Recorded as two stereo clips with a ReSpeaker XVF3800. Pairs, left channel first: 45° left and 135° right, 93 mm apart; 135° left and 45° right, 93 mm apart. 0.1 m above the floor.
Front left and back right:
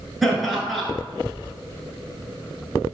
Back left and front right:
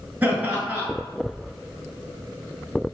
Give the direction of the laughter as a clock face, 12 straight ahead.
1 o'clock.